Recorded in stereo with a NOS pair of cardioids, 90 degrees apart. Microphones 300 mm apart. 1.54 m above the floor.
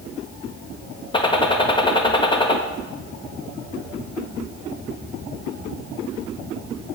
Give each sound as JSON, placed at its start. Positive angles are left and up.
{"t": 1.1, "sound": "a gunshot", "azimuth_deg": 15, "distance_m": 1.3}